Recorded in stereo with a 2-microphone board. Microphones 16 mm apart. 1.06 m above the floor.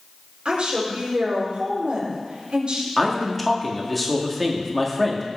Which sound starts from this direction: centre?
A man speaking, at 3.0 s.